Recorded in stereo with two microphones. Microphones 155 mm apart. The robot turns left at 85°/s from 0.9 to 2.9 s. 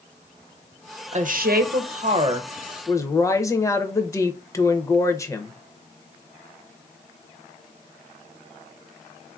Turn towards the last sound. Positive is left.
turn(degrees=160)